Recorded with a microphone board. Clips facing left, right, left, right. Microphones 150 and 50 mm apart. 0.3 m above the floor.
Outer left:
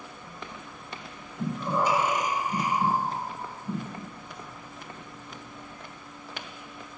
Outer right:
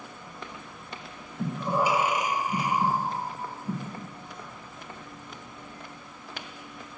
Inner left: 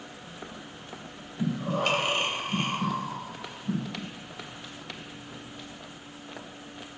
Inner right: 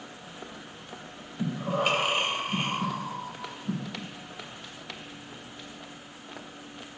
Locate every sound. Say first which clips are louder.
1.4 s breathing: outer right 1 dB, even; 10° right (ahead or behind), 0.6 m